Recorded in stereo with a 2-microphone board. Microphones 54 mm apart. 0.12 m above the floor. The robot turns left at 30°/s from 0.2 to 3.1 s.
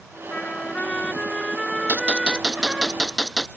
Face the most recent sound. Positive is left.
turn(degrees=175)